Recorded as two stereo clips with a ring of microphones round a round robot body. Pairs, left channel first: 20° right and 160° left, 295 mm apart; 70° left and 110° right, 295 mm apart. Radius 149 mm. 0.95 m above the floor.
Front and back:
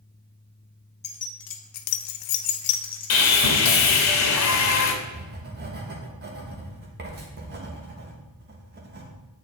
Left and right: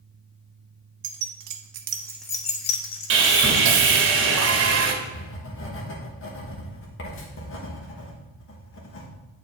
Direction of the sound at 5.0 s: 105° left.